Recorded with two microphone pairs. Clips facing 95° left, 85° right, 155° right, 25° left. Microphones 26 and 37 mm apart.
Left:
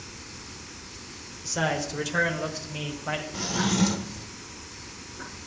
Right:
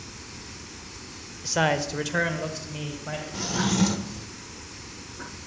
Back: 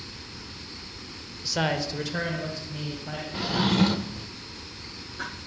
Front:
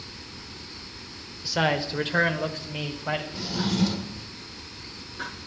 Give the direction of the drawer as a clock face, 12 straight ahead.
6 o'clock.